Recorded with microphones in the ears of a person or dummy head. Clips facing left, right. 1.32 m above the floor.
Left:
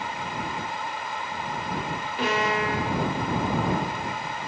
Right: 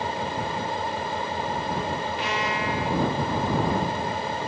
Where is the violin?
50° left (ahead or behind).